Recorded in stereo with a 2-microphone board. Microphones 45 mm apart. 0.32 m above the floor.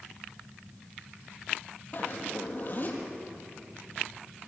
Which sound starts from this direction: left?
A zipper, at 1.9 s.